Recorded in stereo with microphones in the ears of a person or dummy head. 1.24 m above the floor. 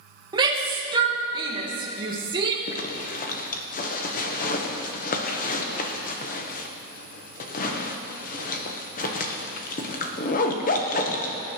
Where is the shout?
25° right (ahead or behind), 1.6 m.